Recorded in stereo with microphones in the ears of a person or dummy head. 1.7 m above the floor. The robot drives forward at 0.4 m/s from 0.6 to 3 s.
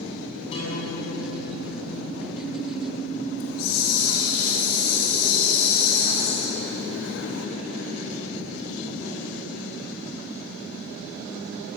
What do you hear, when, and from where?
0.5 s a guitar: 35° left (ahead or behind), 8.5 m; by 3.3 s 40° left (ahead or behind), 8 m
3.4 s a hiss: 85° left, 3.5 m